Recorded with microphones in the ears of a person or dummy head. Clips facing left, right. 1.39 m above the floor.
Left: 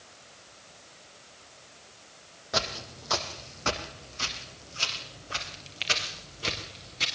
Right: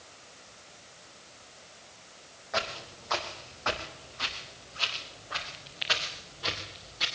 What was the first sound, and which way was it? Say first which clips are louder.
Footsteps: left 2 dB; 45° left (ahead or behind).